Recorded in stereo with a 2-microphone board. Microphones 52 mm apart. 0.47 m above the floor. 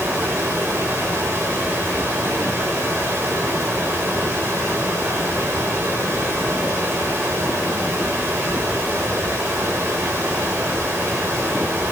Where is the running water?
40° right (ahead or behind), 7 m.